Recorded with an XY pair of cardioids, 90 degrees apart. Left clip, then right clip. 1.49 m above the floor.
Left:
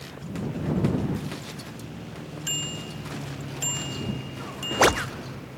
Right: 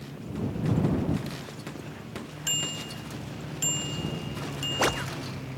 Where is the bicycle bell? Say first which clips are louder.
Right 1 dB; 10° right; by 5.0 s 5° right.